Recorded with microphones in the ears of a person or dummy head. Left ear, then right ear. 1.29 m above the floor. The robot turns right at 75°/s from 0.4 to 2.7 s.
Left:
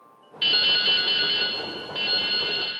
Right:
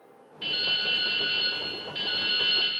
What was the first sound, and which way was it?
Dripping, 25° left (ahead or behind).